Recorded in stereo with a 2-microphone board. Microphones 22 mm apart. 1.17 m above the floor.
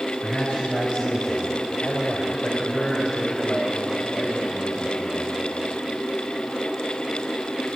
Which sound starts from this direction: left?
A man speaking, at 0.2 s.